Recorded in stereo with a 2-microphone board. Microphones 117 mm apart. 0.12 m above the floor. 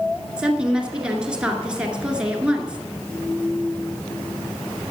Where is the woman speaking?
10° right (ahead or behind), 2 m.